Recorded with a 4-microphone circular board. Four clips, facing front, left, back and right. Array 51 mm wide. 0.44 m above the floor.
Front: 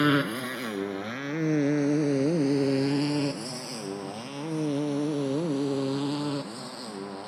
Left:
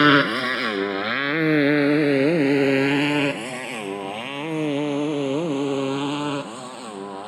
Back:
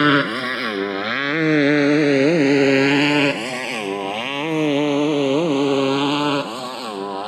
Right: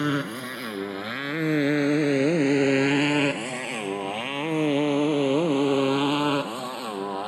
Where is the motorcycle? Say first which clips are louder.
Left 11 dB, back 8 dB; 130° left; by 7.3 s 165° right.